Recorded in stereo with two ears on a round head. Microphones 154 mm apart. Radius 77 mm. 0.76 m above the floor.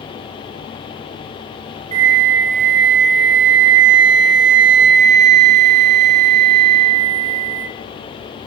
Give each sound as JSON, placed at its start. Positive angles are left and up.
{"t": 1.9, "sound": "a flute", "side_deg": -40, "distance_m": 1.7}